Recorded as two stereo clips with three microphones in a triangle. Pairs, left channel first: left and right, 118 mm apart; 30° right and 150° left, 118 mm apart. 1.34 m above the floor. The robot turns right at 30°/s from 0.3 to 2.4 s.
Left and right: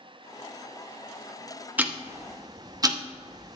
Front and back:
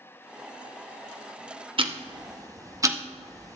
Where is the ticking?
165° right, 0.7 m; by 3.6 s 145° right, 0.7 m.